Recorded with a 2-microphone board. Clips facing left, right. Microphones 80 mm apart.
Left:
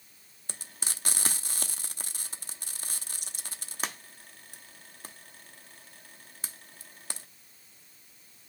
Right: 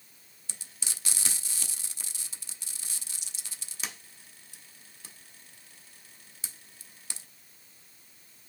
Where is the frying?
50° left (ahead or behind), 0.8 m.